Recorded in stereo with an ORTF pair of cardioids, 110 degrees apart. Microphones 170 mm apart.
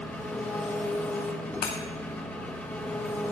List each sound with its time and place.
0.0 s an engine running: 10° left, 2 m
1.6 s breaking glass: 70° left, 2 m